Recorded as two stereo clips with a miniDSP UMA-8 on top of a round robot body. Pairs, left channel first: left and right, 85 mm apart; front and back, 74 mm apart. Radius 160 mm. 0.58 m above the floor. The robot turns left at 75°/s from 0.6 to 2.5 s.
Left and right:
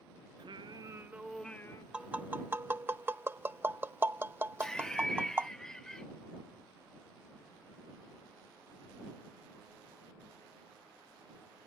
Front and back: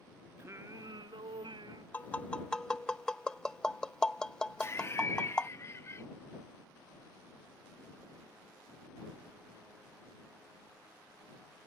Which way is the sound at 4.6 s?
10° left.